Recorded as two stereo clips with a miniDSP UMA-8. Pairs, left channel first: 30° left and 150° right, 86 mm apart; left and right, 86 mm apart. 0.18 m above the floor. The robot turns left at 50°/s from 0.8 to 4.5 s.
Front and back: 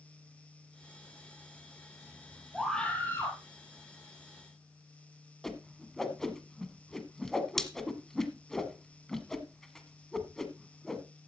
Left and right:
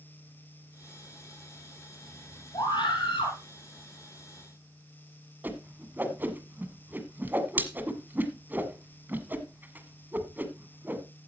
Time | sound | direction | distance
2.5 | a scream | 125° left | 4 m
5.4 | a whoosh | 50° right | 1.3 m